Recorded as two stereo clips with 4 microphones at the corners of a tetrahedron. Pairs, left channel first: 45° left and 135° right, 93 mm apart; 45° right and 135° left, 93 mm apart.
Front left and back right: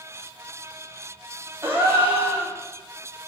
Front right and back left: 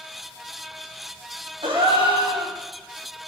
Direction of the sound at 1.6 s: 160° left.